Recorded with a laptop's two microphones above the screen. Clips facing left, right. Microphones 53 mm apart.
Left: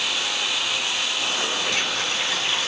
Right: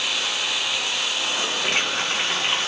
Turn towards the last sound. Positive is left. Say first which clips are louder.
# right 1 dB
turn(degrees=-55)  # may be behind; listen again after turning